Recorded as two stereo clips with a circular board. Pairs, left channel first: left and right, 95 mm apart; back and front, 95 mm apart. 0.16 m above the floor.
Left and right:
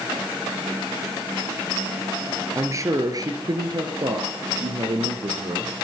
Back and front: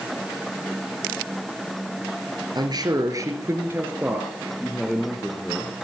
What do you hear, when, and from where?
2.5 s a man speaking: 35° right, 2.5 m; by 5.7 s 100° right, 3 m